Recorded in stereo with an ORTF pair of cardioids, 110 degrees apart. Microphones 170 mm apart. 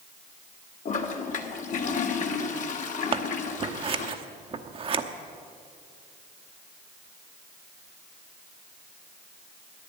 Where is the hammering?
No hammering in this recording.